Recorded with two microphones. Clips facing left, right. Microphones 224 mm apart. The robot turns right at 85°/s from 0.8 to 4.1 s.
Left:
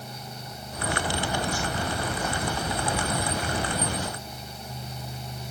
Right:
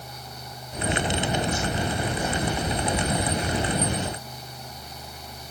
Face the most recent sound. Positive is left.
No sound to turn to.